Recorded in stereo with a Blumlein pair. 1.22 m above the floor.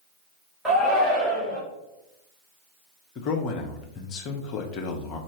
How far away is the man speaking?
About 0.8 m.